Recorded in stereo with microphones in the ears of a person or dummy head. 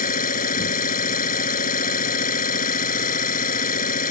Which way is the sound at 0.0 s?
40° left (ahead or behind).